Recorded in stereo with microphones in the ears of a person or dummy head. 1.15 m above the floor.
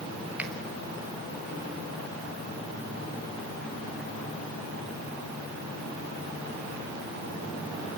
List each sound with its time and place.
0.4 s a finger snap: 5° right (ahead or behind), 1.5 m